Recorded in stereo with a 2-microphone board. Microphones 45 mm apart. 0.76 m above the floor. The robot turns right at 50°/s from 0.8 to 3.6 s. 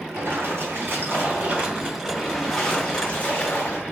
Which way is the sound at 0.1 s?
75° right.